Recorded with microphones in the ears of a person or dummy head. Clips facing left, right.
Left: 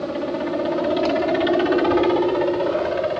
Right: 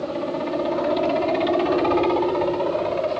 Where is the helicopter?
10° left (ahead or behind); by 3.2 s 15° left (ahead or behind).